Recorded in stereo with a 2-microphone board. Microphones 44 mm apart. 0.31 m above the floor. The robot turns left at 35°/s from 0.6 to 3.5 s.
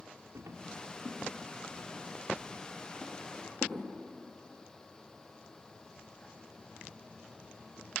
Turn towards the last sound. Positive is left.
turn(degrees=50)  # may be behind; listen again after turning